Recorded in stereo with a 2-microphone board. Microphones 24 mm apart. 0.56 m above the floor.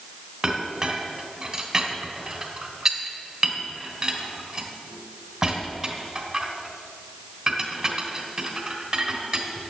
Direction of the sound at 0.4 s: 20° right (ahead or behind).